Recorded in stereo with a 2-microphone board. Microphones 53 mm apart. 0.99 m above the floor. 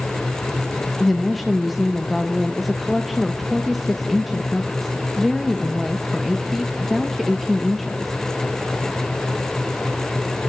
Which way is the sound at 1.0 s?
Centre (ahead or behind).